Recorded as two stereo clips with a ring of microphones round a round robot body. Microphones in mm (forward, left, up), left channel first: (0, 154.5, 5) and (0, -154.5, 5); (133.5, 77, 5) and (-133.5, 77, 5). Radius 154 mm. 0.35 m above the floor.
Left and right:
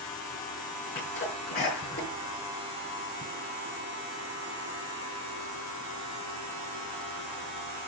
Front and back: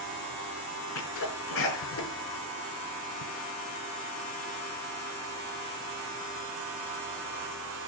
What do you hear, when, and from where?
0.9 s a sneeze: 30° left, 5 m